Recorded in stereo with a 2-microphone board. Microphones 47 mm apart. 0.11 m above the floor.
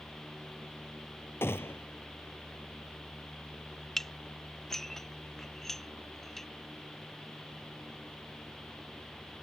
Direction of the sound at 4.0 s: 5° left (ahead or behind).